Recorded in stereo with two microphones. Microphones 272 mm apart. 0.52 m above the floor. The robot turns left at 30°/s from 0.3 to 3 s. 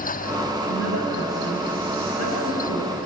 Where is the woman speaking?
130° left, 7 m; by 3.0 s 65° left, 7 m.